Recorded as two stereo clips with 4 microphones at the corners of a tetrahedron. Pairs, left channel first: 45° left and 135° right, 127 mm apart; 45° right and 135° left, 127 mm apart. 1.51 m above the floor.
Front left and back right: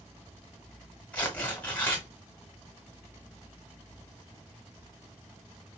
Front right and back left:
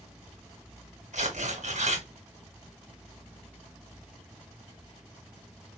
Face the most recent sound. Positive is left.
turn(degrees=120)